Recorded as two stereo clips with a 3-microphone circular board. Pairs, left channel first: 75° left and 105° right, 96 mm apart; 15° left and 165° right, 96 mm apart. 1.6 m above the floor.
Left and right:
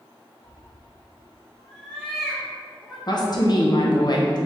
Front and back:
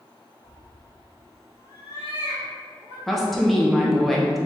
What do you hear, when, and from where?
0.4 s a cat meowing: 25° left, 1.8 m; by 3.0 s 20° right, 2 m
3.1 s a woman speaking: 105° left, 0.9 m